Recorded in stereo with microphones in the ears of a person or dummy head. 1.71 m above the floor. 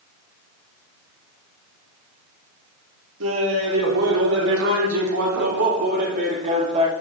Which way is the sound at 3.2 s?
75° right (ahead or behind).